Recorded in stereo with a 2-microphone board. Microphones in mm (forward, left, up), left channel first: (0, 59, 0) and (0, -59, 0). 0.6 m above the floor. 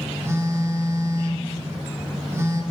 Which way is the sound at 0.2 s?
20° right (ahead or behind).